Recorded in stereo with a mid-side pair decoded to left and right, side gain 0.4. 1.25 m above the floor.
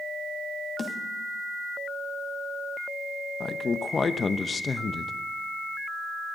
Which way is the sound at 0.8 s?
35° left.